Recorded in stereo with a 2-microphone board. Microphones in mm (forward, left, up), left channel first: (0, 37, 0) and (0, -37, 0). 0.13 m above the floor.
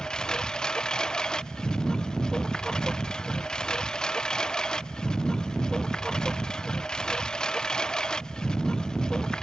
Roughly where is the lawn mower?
Centre.